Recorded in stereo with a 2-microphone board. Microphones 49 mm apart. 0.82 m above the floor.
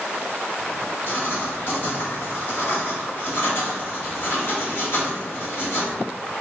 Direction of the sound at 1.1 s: 55° left (ahead or behind).